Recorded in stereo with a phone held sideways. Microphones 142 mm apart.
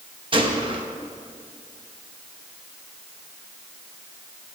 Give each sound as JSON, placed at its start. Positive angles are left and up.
{"t": 0.3, "sound": "a gunshot", "side_deg": -35, "distance_m": 1.2}